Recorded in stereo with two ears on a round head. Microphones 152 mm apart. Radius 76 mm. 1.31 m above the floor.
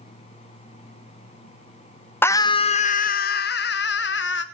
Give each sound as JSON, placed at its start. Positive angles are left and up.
{"t": 2.2, "sound": "a scream", "side_deg": 10, "distance_m": 0.6}